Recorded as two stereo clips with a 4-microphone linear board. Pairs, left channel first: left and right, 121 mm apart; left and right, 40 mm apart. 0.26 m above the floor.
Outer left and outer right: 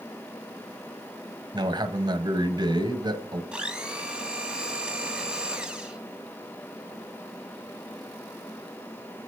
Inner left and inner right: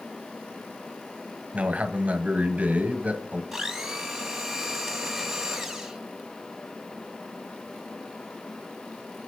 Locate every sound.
1.5 s a man speaking: 40° right (ahead or behind), 1.7 m
3.5 s a blender: 5° right (ahead or behind), 1.9 m